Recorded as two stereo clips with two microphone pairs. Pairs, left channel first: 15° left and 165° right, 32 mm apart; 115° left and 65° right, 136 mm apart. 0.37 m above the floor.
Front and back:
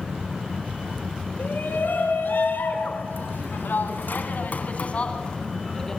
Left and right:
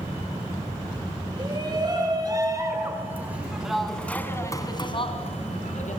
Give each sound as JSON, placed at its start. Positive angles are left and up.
{"t": 1.4, "sound": "a shout", "azimuth_deg": -10, "distance_m": 5.5}